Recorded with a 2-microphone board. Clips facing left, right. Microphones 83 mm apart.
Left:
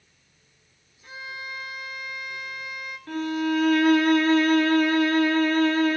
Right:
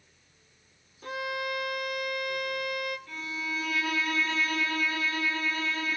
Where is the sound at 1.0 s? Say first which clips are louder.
Right 6 dB; 75° right (ahead or behind), 1.0 m.